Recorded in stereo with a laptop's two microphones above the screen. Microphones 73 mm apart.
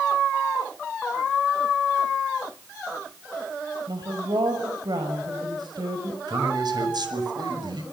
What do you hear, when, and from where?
3.9 s a woman speaking: 75° right (ahead or behind), 6 m
6.3 s a man speaking: 70° right (ahead or behind), 6 m